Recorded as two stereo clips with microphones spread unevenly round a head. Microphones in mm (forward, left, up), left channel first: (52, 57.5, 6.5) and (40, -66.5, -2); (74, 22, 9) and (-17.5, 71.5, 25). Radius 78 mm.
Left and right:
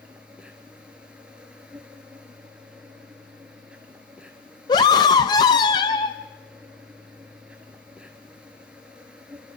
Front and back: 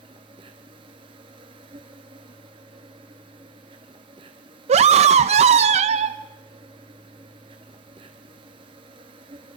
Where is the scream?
145° left, 0.5 m.